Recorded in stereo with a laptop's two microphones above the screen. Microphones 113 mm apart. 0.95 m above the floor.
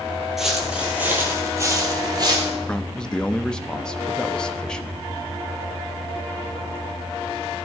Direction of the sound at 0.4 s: 5° right (ahead or behind).